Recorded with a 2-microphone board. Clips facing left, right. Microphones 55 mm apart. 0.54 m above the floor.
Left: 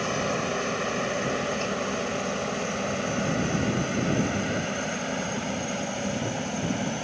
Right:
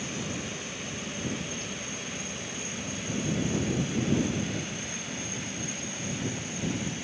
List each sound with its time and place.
0.0 s a helicopter: 60° left (ahead or behind); by 7.1 s 50° left (ahead or behind)